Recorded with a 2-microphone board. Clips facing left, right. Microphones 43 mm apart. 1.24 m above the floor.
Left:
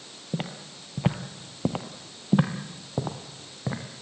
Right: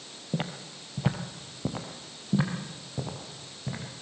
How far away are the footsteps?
About 2 m.